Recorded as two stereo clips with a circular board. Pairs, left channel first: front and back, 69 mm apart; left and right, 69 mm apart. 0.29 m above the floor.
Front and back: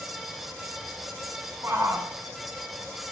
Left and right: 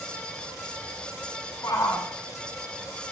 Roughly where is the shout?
Behind left.